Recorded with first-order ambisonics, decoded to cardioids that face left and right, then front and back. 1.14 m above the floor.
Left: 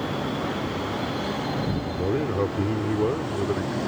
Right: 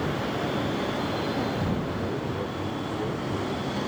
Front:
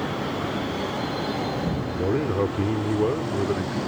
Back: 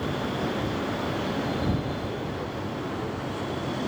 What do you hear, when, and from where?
1.9 s a man speaking: 40° left